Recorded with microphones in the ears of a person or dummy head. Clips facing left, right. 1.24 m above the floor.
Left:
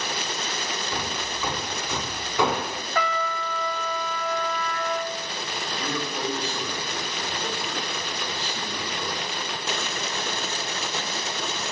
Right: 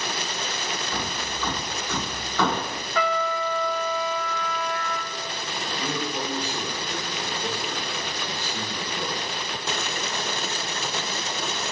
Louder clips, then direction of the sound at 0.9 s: Even; 15° left (ahead or behind).